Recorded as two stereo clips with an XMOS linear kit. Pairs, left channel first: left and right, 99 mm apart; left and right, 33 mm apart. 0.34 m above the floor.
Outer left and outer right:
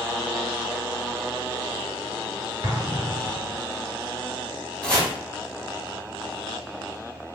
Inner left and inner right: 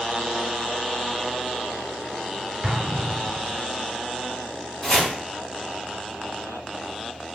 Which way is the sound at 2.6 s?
50° right (ahead or behind).